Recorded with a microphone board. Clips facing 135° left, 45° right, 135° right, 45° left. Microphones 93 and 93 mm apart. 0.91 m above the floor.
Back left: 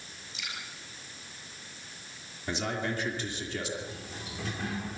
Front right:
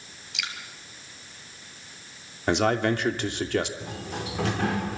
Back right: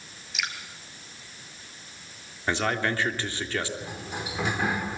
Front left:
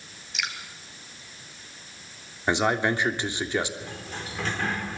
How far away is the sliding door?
About 1.4 m.